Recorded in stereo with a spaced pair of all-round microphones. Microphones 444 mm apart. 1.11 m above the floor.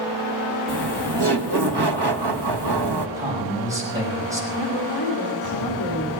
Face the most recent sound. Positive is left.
turn(degrees=55)  # may be behind; listen again after turning